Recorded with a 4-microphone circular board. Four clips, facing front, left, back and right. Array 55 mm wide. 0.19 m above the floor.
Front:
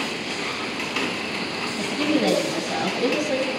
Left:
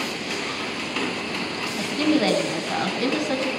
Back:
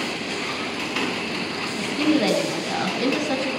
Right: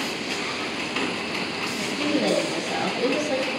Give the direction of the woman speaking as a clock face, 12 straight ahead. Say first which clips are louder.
Left 4 dB, back 2 dB; 9 o'clock.